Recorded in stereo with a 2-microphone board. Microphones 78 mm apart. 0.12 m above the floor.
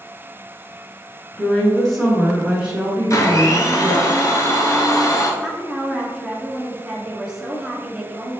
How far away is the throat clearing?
No throat clearing in this recording.